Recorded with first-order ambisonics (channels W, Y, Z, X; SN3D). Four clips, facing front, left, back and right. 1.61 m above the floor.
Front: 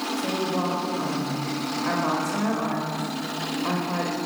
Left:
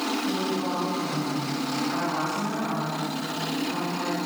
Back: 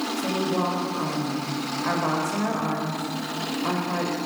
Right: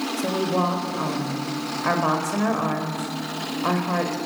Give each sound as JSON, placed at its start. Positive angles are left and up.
{"t": 0.2, "sound": "a woman speaking", "azimuth_deg": -95, "distance_m": 6.0}